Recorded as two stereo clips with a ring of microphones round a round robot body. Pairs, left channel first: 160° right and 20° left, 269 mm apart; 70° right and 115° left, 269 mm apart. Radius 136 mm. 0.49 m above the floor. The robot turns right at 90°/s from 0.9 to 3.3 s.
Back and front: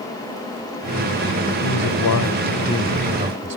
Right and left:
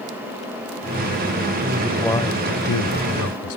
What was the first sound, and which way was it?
A man speaking, 170° left.